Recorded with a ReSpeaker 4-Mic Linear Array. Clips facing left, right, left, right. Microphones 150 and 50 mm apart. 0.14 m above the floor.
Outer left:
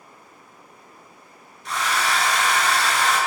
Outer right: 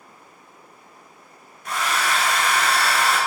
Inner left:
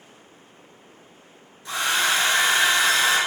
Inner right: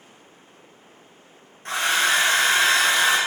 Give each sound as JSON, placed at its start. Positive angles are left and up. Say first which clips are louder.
{"t": 1.6, "sound": "a hair dryer", "louder": "even, inner right 2 dB", "side_deg": -55, "distance_m": 1.1}